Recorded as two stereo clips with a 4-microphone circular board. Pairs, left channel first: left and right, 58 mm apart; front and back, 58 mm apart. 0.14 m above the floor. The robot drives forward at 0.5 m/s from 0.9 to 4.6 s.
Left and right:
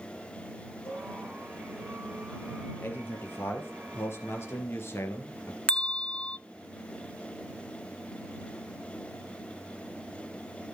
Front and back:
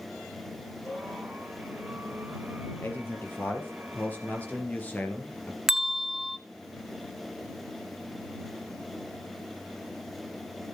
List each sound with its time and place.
0.8 s a cowbell: 25° left, 6 m
2.8 s a man speaking: 45° left, 4 m; by 5.6 s 60° left, 3.5 m
5.7 s a bell: 105° left, 0.6 m